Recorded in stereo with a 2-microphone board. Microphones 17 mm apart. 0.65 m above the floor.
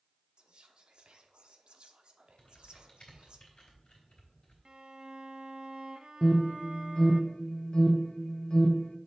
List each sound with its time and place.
0.4 s whispering: 60° right (ahead or behind), 1.0 m
2.4 s typing on a keyboard: 70° left (ahead or behind), 3 m
4.7 s a violin: 50° right (ahead or behind), 0.7 m
6.2 s an alarm: 50° left (ahead or behind), 0.9 m